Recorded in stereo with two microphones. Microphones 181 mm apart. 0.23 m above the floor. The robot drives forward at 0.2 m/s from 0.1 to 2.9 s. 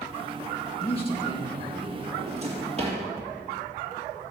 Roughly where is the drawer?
Right.